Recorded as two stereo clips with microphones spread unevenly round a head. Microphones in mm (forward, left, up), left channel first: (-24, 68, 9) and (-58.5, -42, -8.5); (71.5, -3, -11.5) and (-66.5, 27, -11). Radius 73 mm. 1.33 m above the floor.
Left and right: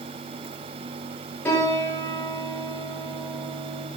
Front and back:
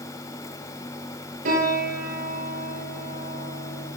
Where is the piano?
145° left, 9.5 m.